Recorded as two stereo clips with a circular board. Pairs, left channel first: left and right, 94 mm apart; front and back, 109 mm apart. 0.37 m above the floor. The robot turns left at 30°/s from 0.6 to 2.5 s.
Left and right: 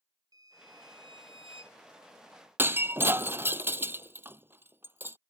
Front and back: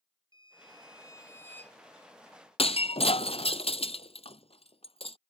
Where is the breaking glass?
25° right.